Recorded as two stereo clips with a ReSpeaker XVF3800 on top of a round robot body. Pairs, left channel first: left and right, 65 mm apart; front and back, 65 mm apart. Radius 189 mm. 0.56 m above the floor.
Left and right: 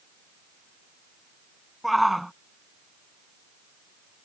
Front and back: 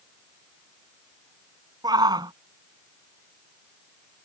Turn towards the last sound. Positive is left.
turn(degrees=180)